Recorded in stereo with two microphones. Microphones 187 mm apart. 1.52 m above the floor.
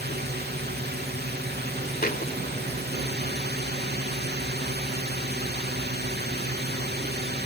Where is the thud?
55° left (ahead or behind).